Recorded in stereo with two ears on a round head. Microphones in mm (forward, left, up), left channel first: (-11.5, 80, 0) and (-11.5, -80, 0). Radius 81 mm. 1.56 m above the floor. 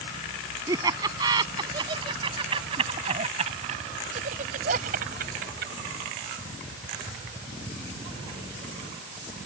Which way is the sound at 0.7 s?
20° right (ahead or behind).